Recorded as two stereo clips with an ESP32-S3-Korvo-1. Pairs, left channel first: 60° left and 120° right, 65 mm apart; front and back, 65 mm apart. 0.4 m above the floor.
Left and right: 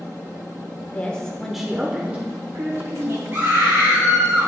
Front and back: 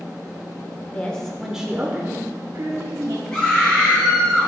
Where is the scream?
70° right, 2 m.